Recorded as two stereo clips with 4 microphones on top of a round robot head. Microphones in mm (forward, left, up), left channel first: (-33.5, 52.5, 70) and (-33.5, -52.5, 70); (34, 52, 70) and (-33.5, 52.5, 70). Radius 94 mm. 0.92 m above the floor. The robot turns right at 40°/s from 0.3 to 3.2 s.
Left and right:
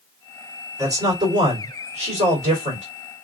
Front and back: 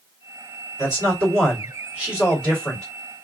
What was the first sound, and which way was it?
A man speaking, 150° right.